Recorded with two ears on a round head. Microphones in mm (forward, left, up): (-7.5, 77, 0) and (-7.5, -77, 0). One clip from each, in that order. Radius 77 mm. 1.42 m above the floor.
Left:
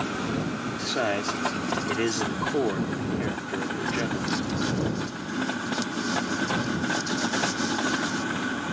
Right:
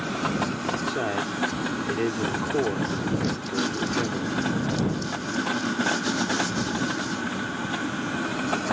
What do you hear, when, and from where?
0.8 s a man speaking: 85° left